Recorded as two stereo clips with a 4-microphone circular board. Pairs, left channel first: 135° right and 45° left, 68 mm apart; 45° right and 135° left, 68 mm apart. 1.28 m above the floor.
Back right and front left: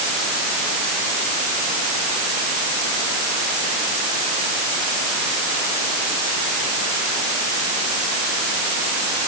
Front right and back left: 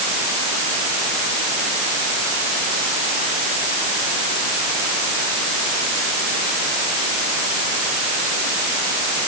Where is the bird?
I don't hear a bird.